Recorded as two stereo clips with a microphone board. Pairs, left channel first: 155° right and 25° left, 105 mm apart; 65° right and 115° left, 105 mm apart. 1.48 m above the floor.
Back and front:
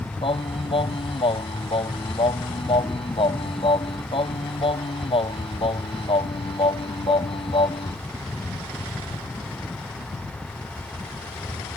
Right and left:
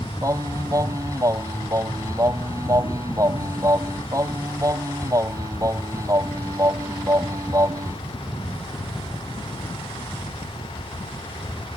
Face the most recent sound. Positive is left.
turn(degrees=170)